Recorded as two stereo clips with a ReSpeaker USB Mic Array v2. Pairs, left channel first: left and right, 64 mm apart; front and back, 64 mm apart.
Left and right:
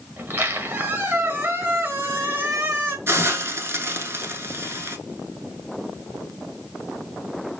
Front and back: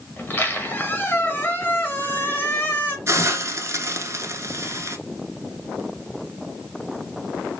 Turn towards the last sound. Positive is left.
turn(degrees=-135)